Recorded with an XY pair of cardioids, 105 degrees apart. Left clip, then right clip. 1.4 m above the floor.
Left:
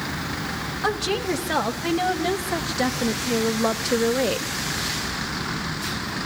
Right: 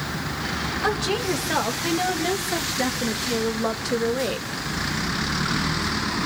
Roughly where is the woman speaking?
Ahead.